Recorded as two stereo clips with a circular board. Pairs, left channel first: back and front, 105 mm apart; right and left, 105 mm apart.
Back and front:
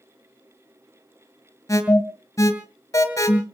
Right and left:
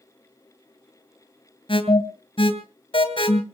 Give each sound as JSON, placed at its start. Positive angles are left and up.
{"t": 1.7, "sound": "an alarm", "azimuth_deg": -120, "distance_m": 3.0}